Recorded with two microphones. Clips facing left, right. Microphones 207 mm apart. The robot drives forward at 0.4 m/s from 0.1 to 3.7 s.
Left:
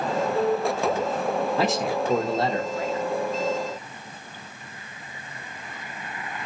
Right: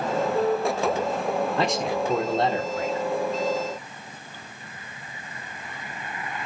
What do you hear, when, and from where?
1.6 s a man speaking: centre (ahead or behind), 0.9 m